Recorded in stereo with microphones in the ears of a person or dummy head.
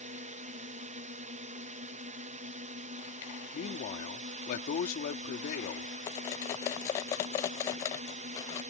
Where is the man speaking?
50° left (ahead or behind).